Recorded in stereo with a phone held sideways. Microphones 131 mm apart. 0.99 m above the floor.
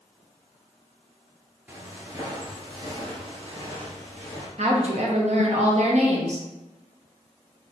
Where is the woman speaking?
55° right (ahead or behind), 0.8 m.